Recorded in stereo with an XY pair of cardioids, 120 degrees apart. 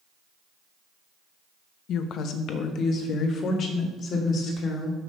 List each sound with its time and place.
1.9 s a woman speaking: 65° left, 0.9 m; by 5.0 s 55° left, 3 m